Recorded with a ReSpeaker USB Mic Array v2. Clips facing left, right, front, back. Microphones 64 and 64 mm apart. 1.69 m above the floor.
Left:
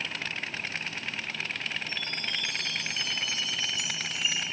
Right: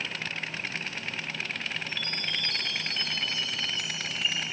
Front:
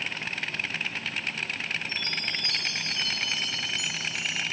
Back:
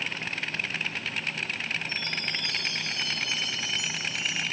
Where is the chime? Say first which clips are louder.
Right 1 dB, even; 10° left, 2.5 m.